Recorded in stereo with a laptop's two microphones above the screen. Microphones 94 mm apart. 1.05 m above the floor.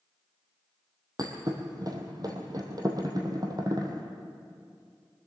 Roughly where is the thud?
Right.